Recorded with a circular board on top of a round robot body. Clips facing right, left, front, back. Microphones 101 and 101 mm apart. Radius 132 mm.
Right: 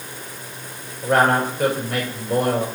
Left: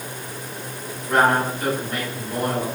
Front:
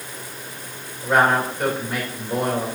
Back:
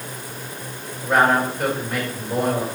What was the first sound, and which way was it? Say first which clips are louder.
A man speaking: right 1 dB, even; 95° right.